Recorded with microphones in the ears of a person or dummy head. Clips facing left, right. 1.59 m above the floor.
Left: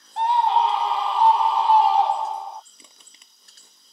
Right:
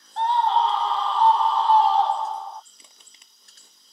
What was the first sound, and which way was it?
A scream, 15° left (ahead or behind).